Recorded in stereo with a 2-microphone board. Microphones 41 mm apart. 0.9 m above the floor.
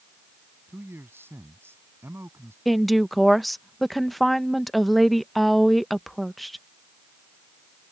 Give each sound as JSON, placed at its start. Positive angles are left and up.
{"t": 0.7, "sound": "a man speaking", "side_deg": -70}
{"t": 2.6, "sound": "a woman speaking", "side_deg": 0}